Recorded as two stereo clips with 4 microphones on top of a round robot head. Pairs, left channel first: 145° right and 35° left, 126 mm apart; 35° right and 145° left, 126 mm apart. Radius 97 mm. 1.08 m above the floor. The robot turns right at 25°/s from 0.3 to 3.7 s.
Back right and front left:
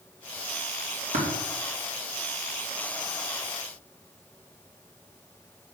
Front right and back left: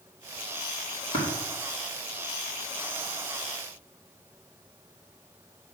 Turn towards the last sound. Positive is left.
turn(degrees=80)